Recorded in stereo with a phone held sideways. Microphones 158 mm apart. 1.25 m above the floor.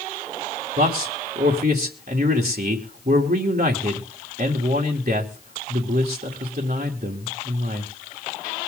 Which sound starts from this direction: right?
A man speaking, at 0.8 s.